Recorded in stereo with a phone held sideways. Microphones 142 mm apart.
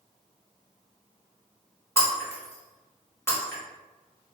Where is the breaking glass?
15° left (ahead or behind), 0.9 m.